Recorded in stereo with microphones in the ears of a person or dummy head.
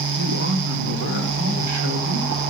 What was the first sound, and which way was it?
A man speaking, 50° right (ahead or behind).